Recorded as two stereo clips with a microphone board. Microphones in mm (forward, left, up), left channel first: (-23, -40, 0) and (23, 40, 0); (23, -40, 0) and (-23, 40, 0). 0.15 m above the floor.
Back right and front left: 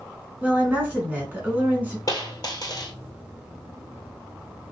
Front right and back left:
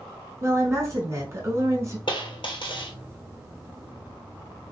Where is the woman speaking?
115° left, 1.9 m.